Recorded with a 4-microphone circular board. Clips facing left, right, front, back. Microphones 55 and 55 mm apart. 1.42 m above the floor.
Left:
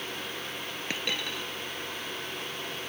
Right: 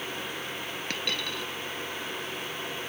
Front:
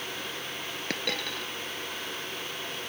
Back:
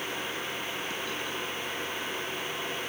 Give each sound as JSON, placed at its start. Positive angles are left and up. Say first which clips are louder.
{"t": 0.9, "sound": "a dropped coin", "louder": "even, front 1 dB", "azimuth_deg": 10}